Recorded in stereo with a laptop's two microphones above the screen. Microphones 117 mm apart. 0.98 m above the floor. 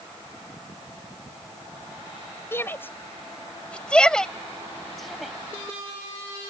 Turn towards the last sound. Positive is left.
turn(degrees=0)  # may be behind; listen again after turning